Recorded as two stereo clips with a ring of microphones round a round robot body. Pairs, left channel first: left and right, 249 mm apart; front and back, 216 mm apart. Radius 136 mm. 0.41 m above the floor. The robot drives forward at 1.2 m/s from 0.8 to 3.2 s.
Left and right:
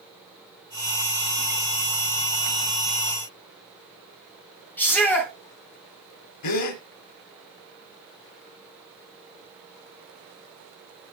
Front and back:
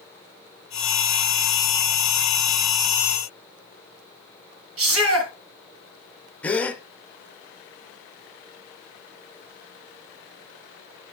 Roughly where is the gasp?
Left.